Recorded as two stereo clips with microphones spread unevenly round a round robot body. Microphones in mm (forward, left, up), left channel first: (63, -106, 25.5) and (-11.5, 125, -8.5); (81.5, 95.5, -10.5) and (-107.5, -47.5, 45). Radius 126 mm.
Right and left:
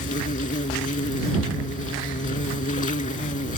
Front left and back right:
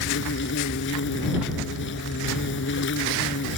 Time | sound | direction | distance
0.0 | an insect | 10° right | ?